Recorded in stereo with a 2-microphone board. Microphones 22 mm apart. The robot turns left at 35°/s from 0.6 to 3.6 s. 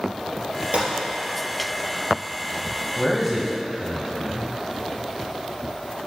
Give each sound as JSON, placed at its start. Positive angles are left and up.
{"t": 0.7, "sound": "a gunshot", "side_deg": -80, "distance_m": 3.5}
{"t": 3.0, "sound": "a man speaking", "side_deg": 0, "distance_m": 1.2}